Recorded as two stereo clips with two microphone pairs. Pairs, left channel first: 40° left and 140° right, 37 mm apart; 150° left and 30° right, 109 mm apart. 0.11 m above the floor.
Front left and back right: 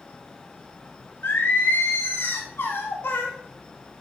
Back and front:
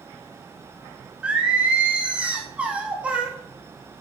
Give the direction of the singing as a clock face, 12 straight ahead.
10 o'clock.